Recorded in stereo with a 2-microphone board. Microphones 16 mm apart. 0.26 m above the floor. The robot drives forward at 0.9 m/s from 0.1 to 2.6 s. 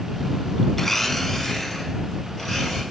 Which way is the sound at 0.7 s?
15° left (ahead or behind).